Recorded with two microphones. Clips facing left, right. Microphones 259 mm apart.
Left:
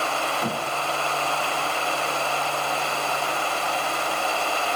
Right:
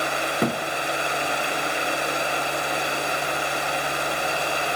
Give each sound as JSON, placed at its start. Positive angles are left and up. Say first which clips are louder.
{"t": 0.4, "sound": "a thud", "louder": "right 7 dB", "side_deg": -55, "distance_m": 1.2}